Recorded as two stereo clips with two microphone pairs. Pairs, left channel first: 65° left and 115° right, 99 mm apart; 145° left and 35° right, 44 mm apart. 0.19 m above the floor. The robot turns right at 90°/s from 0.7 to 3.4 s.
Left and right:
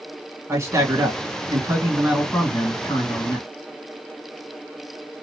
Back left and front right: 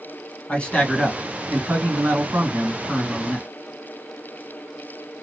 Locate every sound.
0.5 s a man speaking: 165° right, 2.0 m; by 3.5 s 80° left, 2.0 m